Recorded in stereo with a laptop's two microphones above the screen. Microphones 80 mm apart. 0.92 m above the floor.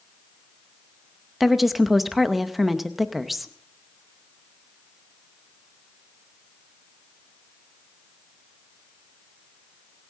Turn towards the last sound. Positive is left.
turn(degrees=0)  # may be behind; listen again after turning